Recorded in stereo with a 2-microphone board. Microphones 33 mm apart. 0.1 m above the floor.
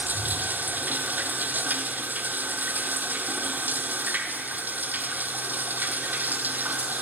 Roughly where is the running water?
Right.